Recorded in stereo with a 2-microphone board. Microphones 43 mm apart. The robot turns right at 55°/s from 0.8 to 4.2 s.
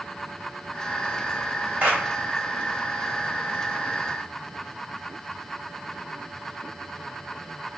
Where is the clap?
40° right (ahead or behind), 2 m; by 2.0 s 50° right (ahead or behind), 2 m.